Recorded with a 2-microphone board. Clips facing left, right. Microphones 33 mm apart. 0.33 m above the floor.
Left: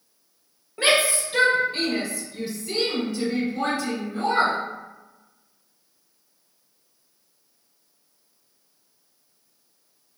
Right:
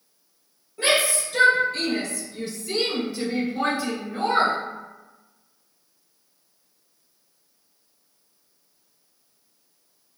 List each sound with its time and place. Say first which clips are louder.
0.8 s a shout: left 1 dB; 40° left (ahead or behind), 1.6 m; by 4.6 s 35° right (ahead or behind), 1.4 m